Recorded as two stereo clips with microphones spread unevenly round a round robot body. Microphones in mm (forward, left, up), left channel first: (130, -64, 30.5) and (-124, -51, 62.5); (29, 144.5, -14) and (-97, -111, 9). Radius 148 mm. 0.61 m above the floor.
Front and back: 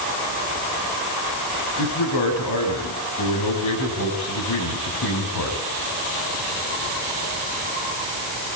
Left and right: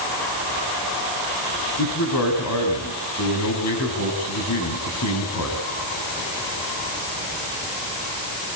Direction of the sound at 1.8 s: 20° left.